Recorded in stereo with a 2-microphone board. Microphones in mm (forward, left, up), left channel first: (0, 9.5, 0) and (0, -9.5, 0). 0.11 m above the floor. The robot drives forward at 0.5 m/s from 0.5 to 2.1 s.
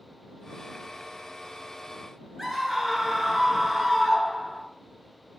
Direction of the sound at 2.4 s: 15° right (ahead or behind).